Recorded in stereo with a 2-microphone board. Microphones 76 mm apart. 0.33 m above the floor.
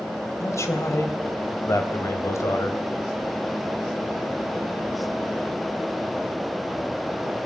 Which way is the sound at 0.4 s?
40° left (ahead or behind).